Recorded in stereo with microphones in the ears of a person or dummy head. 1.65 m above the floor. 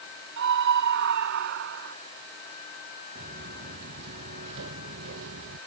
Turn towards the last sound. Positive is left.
turn(degrees=-70)  # may be behind; listen again after turning